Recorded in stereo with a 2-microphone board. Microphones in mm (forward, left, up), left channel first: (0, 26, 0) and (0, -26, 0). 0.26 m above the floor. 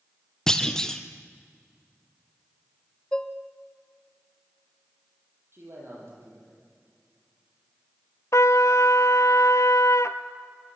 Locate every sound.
0.5 s a clunk: 15° left (ahead or behind), 1.4 m
3.1 s dishes clattering: 20° left (ahead or behind), 0.9 m
5.5 s a man speaking: 50° right (ahead or behind), 9 m
8.3 s a trumpet: 70° left (ahead or behind), 0.9 m